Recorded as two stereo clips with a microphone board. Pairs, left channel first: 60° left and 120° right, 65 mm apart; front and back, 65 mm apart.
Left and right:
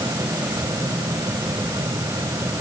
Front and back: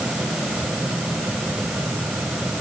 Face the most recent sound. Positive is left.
No sound to turn to.